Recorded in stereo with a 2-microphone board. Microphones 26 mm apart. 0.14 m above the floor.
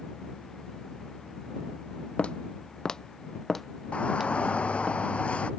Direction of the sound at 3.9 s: 45° left (ahead or behind).